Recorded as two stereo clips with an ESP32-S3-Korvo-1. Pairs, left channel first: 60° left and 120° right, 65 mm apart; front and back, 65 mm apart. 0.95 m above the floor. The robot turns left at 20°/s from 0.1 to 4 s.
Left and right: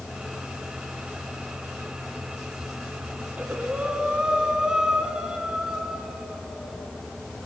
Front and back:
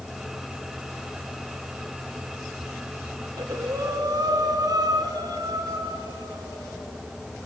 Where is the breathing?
175° left, 2.5 m; by 6.8 s 160° left, 2.5 m.